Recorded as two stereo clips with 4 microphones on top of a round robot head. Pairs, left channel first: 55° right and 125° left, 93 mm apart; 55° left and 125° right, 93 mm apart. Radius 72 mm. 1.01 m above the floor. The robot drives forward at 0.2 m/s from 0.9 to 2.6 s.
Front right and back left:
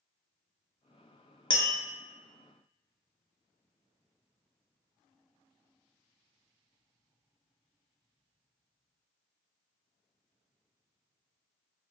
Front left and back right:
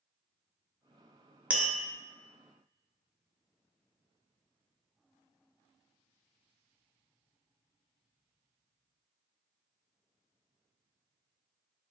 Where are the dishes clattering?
No dishes clattering in this recording.